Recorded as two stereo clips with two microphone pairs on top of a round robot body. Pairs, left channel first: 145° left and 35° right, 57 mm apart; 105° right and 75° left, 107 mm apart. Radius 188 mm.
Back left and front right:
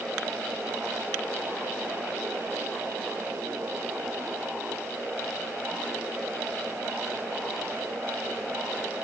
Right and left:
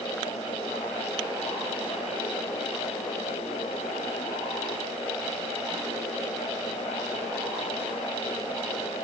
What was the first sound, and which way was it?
Only background noise.